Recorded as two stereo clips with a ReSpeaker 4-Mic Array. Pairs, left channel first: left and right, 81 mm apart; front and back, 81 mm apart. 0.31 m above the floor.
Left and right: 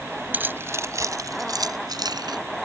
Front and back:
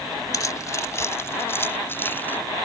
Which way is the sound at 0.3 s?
30° right.